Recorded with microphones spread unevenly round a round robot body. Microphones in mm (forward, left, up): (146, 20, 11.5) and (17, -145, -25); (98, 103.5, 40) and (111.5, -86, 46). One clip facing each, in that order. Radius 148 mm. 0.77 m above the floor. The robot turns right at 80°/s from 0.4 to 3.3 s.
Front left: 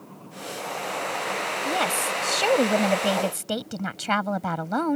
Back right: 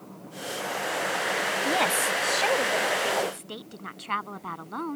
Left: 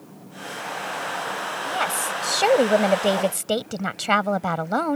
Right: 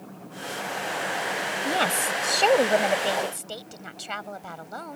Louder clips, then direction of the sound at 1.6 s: Even, right 3 dB; 50° right.